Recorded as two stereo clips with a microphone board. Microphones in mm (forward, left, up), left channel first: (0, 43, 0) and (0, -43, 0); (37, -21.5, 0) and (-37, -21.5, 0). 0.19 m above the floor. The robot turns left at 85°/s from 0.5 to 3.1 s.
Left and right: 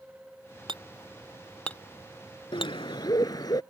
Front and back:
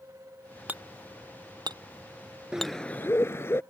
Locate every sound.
0.7 s hammering: 110° right; by 2.8 s 75° left
2.5 s a bird: 100° left; by 3.6 s 50° left